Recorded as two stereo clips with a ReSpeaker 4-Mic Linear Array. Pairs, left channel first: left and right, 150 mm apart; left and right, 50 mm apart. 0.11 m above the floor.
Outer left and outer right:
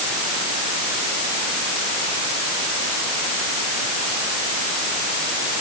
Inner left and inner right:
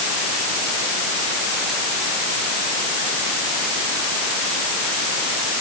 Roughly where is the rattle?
No rattle in this recording.